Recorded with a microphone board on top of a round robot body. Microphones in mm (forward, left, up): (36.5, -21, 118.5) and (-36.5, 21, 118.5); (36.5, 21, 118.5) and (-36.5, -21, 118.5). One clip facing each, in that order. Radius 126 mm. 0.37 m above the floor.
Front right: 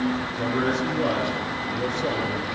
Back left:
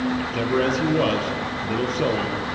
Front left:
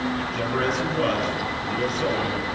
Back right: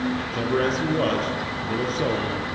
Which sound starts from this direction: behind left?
A man speaking, at 0.2 s.